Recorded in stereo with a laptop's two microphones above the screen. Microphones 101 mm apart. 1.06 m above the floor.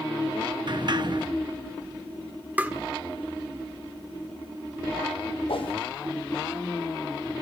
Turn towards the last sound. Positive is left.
turn(degrees=75)  # may be behind; listen again after turning